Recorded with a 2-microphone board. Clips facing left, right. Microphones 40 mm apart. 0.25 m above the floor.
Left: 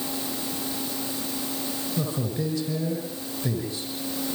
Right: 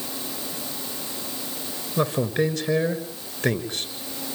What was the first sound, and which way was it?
A man speaking, 70° right (ahead or behind).